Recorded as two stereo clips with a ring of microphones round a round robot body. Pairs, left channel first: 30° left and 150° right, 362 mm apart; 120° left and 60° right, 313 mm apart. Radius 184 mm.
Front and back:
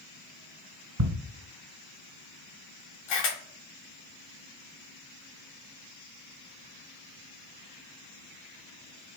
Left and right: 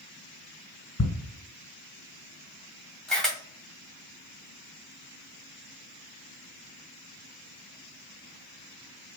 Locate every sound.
1.0 s ticking: 175° left, 1.8 m
3.1 s a camera shutter: 30° left, 1.9 m